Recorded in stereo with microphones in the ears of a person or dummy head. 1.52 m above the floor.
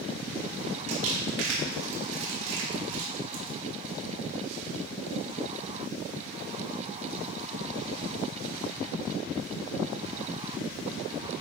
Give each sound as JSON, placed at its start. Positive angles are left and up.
{"t": 0.9, "sound": "crumpling", "side_deg": -75, "distance_m": 3.5}